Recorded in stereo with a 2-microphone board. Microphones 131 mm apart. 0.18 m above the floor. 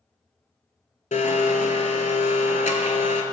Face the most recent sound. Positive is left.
turn(degrees=70)  # may be behind; listen again after turning